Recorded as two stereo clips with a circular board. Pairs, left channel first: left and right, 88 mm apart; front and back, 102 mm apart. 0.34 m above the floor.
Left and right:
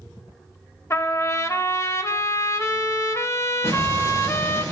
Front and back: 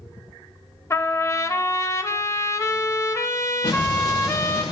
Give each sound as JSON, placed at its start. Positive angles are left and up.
{"t": 0.9, "sound": "a trumpet", "azimuth_deg": 45, "distance_m": 0.8}
{"t": 3.6, "sound": "an explosion", "azimuth_deg": 35, "distance_m": 5.0}